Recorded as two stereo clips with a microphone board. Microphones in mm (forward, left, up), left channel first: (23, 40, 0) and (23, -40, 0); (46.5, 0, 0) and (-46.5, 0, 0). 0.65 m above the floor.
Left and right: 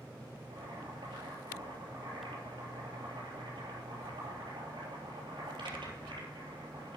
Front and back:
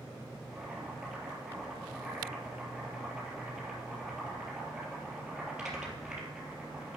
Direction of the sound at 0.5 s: 95° right.